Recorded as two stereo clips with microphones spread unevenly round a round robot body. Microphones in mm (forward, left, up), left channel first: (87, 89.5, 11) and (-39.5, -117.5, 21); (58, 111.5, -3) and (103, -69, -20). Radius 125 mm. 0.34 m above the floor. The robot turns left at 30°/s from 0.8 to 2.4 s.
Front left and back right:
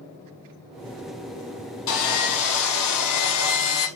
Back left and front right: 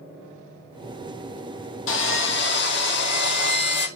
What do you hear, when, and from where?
1.9 s sawing: 90° left, 1.6 m; by 3.9 s 75° left, 1.6 m